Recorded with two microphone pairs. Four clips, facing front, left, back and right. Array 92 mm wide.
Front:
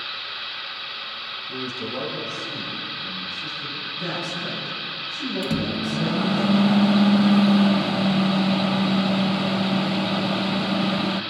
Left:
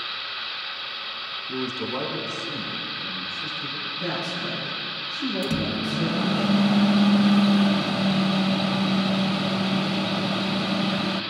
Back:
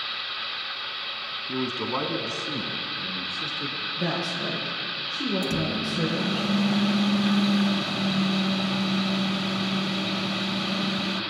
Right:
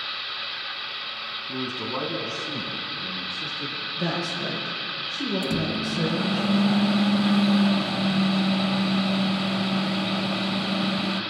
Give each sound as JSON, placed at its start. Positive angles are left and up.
{"t": 1.5, "sound": "a man speaking", "azimuth_deg": 170, "distance_m": 2.0}
{"t": 4.0, "sound": "a woman speaking", "azimuth_deg": -135, "distance_m": 7.0}
{"t": 5.4, "sound": "a microwave", "azimuth_deg": 0, "distance_m": 0.8}